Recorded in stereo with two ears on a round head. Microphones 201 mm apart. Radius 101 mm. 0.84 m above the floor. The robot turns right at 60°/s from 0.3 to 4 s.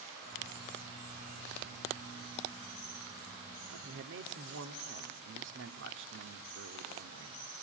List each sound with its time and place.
3.7 s a man speaking: 70° right (ahead or behind), 1.8 m; by 7.5 s 55° right (ahead or behind), 1.8 m